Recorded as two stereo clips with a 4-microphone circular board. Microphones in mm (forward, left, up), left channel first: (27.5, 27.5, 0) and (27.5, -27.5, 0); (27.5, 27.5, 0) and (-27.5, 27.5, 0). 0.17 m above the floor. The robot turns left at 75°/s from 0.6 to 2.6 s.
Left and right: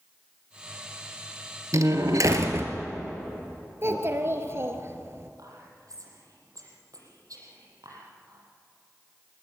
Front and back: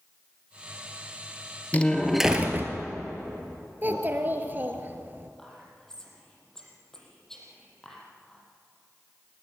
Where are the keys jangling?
I don't hear keys jangling.